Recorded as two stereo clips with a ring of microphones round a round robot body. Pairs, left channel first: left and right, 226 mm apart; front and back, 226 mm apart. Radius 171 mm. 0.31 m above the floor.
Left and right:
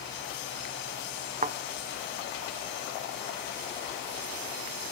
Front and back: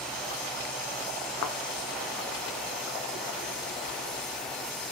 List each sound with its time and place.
1.4 s a thud: 30° right, 0.7 m